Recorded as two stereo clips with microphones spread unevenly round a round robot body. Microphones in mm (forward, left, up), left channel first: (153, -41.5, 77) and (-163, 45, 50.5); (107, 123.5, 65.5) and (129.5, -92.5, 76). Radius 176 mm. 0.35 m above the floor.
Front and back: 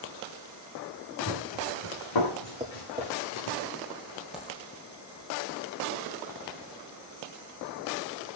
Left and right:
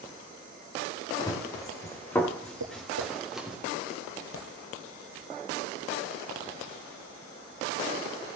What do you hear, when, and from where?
1.2 s running footsteps: 25° left, 4 m; by 3.6 s straight ahead, 4 m
2.6 s tapping: 120° right, 2 m
4.3 s a dropped coin: 75° left, 3 m